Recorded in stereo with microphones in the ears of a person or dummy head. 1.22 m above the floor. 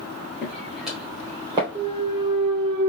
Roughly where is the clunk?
Right.